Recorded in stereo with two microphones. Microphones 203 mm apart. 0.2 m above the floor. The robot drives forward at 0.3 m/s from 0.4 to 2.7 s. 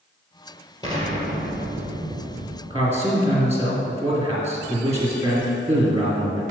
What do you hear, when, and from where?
0.8 s an explosion: 20° left (ahead or behind), 1.6 m; by 2.6 s 30° left (ahead or behind), 1.1 m
2.7 s a man speaking: 15° right (ahead or behind), 1.7 m